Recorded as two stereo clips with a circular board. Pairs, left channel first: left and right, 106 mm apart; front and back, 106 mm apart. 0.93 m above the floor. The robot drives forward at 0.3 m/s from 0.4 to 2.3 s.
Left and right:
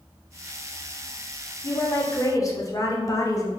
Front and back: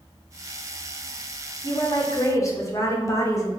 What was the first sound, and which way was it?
A woman speaking, 35° left.